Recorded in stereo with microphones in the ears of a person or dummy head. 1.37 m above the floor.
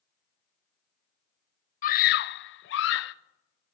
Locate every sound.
1.8 s a scream: 40° left (ahead or behind), 0.7 m; by 3.1 s 70° left (ahead or behind), 0.9 m